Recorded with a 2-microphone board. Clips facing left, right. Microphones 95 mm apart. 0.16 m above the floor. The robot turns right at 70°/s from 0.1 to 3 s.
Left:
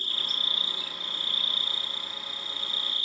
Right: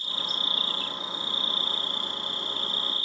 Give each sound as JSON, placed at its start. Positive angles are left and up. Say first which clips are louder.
{"t": 0.0, "sound": "an insect", "louder": "right 3 dB", "azimuth_deg": 120, "distance_m": 1.6}